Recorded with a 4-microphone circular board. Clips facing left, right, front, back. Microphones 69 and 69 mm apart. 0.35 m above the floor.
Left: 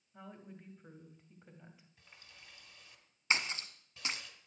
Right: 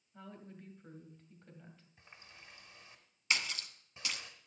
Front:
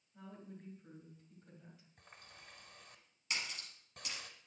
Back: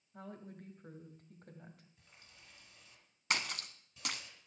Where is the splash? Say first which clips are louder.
Left 2 dB, back 6 dB; 155° left, 0.9 m.